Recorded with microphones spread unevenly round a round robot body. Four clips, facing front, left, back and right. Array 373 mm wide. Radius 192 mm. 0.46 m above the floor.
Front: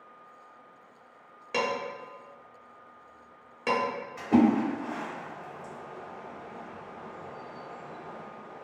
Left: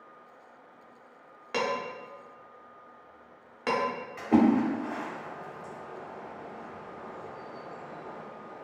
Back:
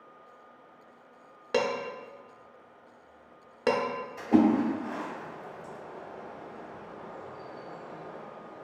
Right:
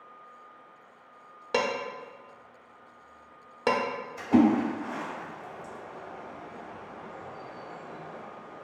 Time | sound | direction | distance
1.5 | dishes clattering | 135° right | 0.5 m
4.2 | a splash | 80° left | 2.0 m